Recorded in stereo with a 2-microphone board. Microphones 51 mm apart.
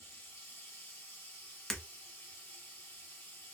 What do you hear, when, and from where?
0.0 s running water: 45° left (ahead or behind), 1.9 m
1.7 s breaking glass: 5° left (ahead or behind), 0.7 m